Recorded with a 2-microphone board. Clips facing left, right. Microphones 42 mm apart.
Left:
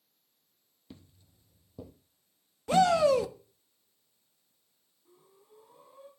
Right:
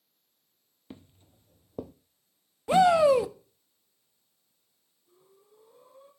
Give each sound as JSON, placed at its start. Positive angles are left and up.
{"t": 0.9, "sound": "footsteps", "side_deg": -30, "distance_m": 0.8}
{"t": 2.7, "sound": "a shout", "side_deg": -15, "distance_m": 0.9}
{"t": 5.0, "sound": "breathing", "side_deg": 80, "distance_m": 7.0}